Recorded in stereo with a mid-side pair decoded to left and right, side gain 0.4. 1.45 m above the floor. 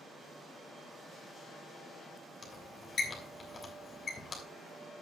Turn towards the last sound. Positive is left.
turn(degrees=45)